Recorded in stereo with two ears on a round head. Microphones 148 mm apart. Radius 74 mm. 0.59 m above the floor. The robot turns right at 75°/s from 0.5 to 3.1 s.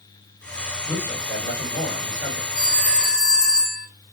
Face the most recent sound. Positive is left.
turn(degrees=155)